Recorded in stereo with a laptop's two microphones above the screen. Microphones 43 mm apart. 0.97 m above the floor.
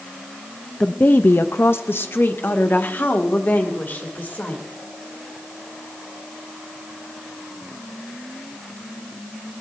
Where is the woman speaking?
30° left (ahead or behind), 0.5 m; by 4.7 s 50° left (ahead or behind), 3 m.